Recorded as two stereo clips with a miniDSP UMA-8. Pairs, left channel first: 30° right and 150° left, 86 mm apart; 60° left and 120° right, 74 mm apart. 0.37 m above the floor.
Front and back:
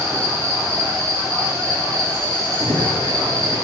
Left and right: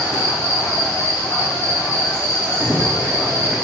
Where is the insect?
105° left, 2.5 m.